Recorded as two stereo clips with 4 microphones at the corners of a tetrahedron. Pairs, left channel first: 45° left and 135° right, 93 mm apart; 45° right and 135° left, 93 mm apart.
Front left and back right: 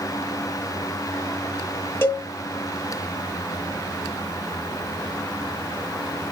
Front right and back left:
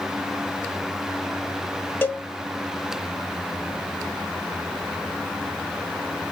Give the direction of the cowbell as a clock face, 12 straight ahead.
12 o'clock.